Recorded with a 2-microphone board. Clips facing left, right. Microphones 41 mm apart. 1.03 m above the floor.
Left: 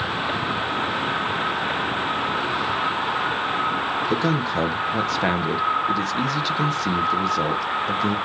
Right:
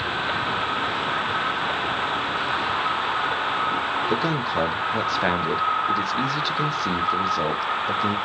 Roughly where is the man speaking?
Centre.